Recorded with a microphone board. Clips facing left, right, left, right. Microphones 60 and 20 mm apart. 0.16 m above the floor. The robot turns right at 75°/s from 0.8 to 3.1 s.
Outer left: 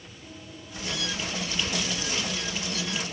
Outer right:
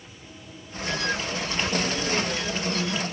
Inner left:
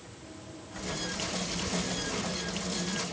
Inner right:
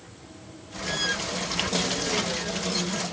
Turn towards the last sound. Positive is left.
No sound to turn to.